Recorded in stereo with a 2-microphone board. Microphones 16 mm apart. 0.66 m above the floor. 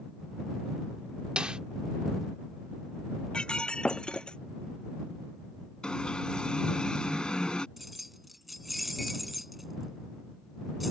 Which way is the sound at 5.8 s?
55° left (ahead or behind).